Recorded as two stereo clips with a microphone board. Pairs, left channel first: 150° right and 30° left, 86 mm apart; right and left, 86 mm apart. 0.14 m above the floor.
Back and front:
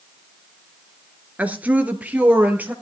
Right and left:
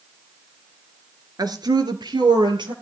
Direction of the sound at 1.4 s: 100° left.